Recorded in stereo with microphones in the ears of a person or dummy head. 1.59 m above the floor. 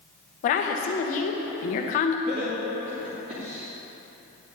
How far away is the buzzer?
No buzzer in this recording.